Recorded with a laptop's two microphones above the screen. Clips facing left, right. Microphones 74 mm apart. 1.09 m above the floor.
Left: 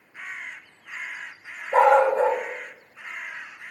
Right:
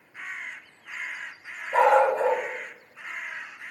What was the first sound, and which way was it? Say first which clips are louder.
A dog barking: left 2 dB; 35° left (ahead or behind).